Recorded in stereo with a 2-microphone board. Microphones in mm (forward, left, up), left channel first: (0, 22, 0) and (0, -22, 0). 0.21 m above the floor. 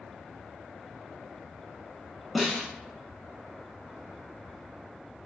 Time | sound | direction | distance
2.4 | a snare drum | 5° left (ahead or behind) | 0.6 m